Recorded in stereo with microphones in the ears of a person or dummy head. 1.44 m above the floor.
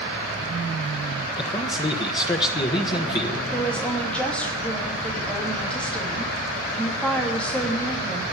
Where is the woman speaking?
10° left (ahead or behind), 3 m.